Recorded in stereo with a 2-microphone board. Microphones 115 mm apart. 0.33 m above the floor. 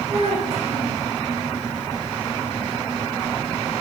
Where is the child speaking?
60° right (ahead or behind), 8.5 m.